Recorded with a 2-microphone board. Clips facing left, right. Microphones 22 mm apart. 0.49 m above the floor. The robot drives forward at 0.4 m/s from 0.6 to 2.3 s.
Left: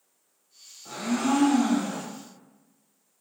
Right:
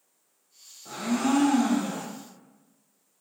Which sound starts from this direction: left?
A blender, at 0.8 s.